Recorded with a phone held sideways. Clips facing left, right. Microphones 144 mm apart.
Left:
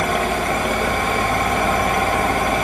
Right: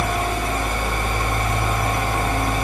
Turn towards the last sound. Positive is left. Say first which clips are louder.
# left 3 dB
turn(degrees=70)  # may be behind; listen again after turning